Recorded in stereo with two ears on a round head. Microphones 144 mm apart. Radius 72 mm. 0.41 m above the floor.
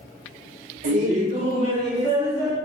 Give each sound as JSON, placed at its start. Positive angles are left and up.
{"t": 0.8, "sound": "laughter", "side_deg": -45, "distance_m": 1.4}